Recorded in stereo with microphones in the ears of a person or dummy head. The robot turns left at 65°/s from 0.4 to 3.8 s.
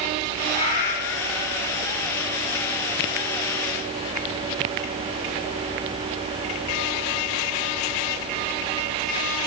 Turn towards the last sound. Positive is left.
turn(degrees=-55)